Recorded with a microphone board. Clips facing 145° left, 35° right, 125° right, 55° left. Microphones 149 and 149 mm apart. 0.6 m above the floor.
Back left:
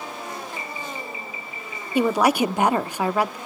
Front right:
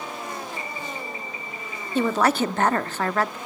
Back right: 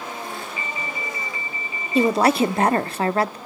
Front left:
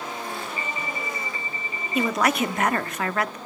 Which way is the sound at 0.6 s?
5° left.